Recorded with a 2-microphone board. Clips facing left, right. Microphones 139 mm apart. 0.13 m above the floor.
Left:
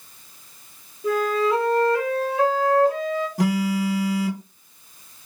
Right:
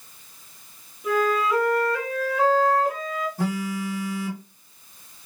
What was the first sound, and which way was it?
A flute, 30° left (ahead or behind).